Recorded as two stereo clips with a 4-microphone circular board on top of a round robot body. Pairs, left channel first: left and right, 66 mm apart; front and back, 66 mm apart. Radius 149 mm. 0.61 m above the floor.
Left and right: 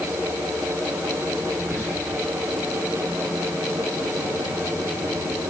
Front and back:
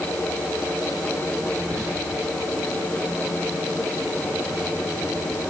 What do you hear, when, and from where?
1.6 s whispering: 140° left, 2 m